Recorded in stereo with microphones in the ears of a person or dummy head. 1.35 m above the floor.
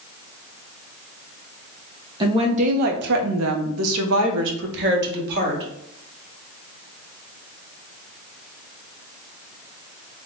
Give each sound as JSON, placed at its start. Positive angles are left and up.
{"t": 2.2, "sound": "a woman speaking", "side_deg": -25, "distance_m": 1.0}